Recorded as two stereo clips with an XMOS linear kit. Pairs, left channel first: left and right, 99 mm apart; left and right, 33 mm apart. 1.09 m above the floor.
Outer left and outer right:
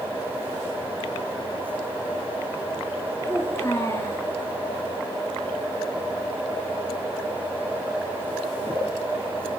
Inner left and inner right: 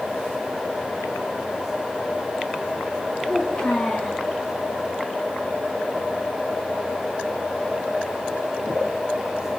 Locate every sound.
3.2 s a child speaking: 30° left (ahead or behind), 8.5 m